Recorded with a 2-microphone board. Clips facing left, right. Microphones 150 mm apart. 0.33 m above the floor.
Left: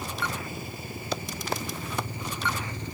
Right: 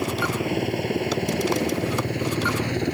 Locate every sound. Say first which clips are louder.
0.0 s a helicopter: right 9 dB; 75° right (ahead or behind)